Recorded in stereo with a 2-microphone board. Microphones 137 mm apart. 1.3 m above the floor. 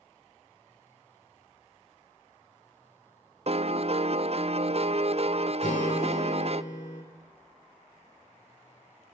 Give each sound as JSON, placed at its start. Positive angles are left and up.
{"t": 3.5, "sound": "a piano", "side_deg": -50, "distance_m": 0.5}
{"t": 5.6, "sound": "a guitar", "side_deg": 75, "distance_m": 3.5}